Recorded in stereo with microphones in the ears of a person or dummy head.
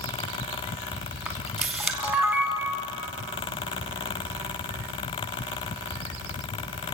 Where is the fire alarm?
No fire alarm in this recording.